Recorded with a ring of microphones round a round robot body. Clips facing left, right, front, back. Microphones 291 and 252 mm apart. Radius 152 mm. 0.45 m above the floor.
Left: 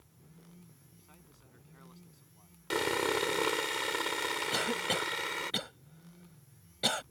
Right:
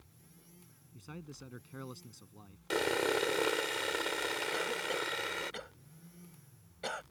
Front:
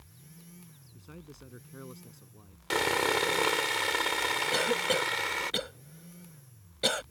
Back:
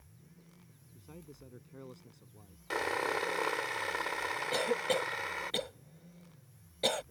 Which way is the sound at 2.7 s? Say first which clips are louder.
Even, front 6 dB; 15° left.